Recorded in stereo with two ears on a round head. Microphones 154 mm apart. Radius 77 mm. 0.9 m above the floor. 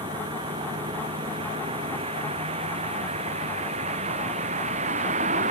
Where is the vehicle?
25° right (ahead or behind); by 5.5 s 40° right (ahead or behind).